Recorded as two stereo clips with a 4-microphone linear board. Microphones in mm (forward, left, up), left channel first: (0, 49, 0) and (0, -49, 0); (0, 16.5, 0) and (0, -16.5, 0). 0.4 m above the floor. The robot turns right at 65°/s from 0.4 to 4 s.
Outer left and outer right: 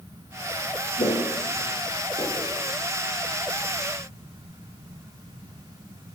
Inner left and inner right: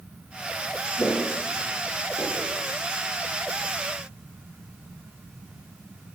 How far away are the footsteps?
About 3.5 m.